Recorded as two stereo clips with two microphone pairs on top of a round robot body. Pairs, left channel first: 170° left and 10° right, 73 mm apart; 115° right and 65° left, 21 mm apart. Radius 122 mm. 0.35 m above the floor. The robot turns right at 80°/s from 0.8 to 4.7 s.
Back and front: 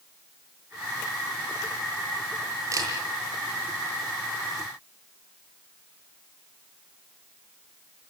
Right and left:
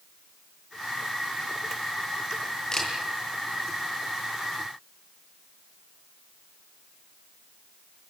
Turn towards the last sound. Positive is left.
turn(degrees=100)